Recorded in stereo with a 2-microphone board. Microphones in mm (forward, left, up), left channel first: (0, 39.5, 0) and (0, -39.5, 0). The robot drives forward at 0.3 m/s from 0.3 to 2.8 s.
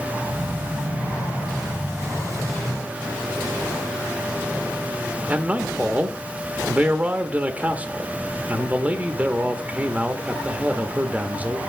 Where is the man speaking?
15° right (ahead or behind), 0.8 m.